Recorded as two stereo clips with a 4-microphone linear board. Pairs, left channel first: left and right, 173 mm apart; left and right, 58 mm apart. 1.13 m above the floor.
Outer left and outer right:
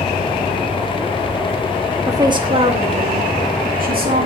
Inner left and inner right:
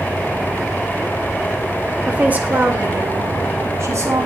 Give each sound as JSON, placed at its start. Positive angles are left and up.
{"t": 2.1, "sound": "a woman speaking", "side_deg": -20, "distance_m": 1.8}